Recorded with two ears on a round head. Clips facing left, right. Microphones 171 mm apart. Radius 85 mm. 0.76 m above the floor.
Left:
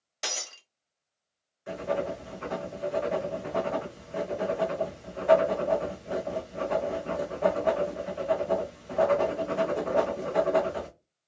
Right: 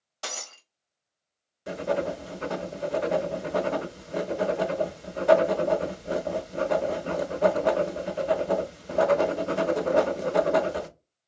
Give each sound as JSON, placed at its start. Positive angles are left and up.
{"t": 0.2, "sound": "breaking glass", "side_deg": 25, "distance_m": 1.1}
{"t": 1.7, "sound": "writing", "side_deg": -50, "distance_m": 0.6}